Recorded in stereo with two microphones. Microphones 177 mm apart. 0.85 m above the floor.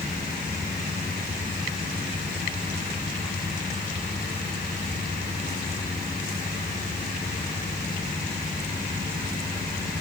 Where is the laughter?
No laughter in this recording.